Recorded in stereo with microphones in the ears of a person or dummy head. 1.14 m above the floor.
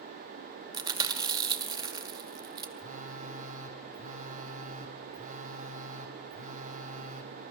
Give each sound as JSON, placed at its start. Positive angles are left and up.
{"t": 0.7, "sound": "chewing", "side_deg": -25, "distance_m": 2.5}
{"t": 2.8, "sound": "a phone buzzing", "side_deg": -40, "distance_m": 2.0}